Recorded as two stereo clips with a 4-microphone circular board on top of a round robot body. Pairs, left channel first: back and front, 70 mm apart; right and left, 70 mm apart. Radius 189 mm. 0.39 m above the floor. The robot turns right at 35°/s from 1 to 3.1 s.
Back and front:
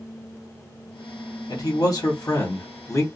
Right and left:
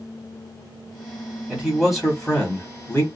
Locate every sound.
1.5 s a man speaking: 170° left, 1.4 m; by 3.0 s 135° right, 1.4 m